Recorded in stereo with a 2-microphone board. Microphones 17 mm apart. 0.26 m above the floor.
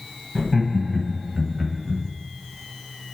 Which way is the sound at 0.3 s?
10° left (ahead or behind).